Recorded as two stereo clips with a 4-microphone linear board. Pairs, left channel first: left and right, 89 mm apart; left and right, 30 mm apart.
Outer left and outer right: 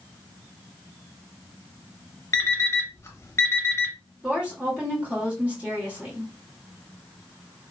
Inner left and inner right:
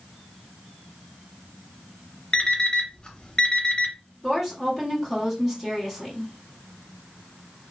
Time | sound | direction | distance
2.3 | an alarm clock | 35° left (ahead or behind) | 0.5 m
4.2 | a woman speaking | 15° right (ahead or behind) | 1.2 m